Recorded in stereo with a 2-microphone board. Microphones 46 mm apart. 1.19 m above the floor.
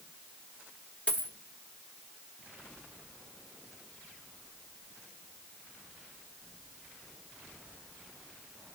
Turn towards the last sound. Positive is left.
turn(degrees=25)  # may be behind; listen again after turning